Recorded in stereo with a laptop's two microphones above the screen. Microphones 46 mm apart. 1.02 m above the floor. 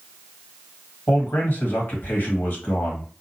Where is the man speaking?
45° left (ahead or behind), 1.8 m.